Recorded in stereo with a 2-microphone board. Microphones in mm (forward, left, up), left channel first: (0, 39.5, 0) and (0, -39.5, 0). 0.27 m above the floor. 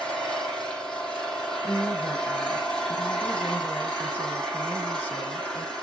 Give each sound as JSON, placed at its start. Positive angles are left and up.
{"t": 0.0, "sound": "an engine running", "side_deg": 10, "distance_m": 6.0}
{"t": 1.6, "sound": "a woman speaking", "side_deg": 20, "distance_m": 2.0}